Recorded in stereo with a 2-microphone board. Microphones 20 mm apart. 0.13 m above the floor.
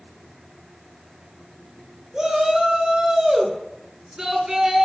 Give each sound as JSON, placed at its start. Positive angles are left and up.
{"t": 2.1, "sound": "a shout", "side_deg": -35, "distance_m": 2.5}